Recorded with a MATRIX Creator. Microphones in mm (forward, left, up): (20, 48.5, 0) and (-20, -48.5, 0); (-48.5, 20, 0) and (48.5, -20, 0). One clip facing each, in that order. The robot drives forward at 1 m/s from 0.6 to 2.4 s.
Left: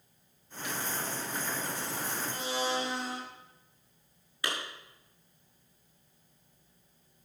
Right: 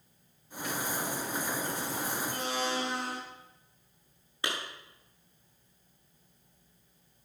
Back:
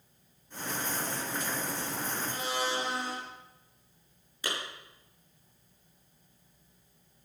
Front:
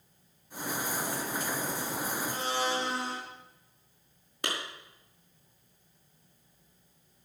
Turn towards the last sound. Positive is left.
turn(degrees=-45)